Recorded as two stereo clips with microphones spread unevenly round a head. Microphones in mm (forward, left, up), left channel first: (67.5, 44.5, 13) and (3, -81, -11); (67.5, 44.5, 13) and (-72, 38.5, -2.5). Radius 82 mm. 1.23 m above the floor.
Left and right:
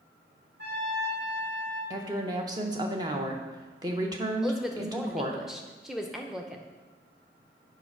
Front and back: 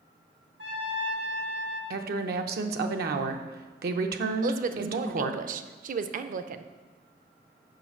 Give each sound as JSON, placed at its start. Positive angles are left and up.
{"t": 0.6, "sound": "a trumpet", "azimuth_deg": -155, "distance_m": 2.0}
{"t": 1.9, "sound": "a woman speaking", "azimuth_deg": 175, "distance_m": 0.7}
{"t": 4.4, "sound": "a woman speaking", "azimuth_deg": 155, "distance_m": 0.5}